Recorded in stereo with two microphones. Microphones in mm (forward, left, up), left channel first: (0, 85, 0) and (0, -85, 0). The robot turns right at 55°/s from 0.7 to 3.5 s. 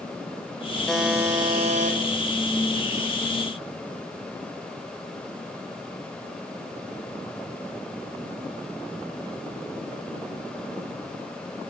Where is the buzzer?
175° left, 3 m; by 2.0 s 125° right, 3 m.